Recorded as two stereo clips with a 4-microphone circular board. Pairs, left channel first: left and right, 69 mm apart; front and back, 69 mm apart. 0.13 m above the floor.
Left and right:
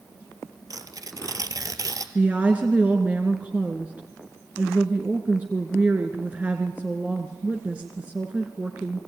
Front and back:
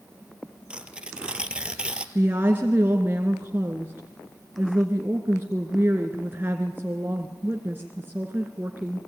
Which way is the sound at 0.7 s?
105° right.